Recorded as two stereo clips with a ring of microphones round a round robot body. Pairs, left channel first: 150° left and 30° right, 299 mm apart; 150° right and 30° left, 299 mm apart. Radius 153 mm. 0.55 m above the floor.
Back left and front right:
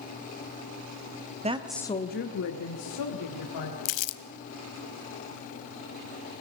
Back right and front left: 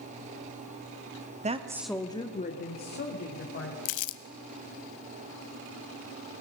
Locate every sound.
1.4 s a woman speaking: straight ahead, 1.0 m; by 3.8 s 160° left, 3 m
3.9 s crumpling: straight behind, 0.9 m